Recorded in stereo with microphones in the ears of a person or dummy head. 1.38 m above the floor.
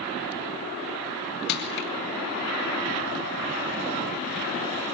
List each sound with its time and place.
1.5 s crushing: 55° left (ahead or behind), 3 m